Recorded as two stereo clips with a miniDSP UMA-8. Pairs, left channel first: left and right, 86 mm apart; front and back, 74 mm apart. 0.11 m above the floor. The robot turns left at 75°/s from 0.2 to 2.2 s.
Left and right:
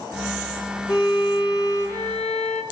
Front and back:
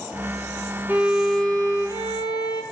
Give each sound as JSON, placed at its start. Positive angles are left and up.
{"t": 0.9, "sound": "a violin", "azimuth_deg": 110, "distance_m": 1.5}